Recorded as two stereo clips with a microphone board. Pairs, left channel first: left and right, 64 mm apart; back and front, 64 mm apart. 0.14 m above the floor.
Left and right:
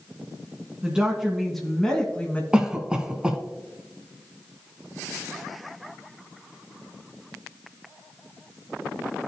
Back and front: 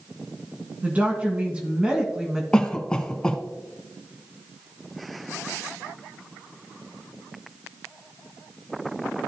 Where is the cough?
135° right, 1.0 m.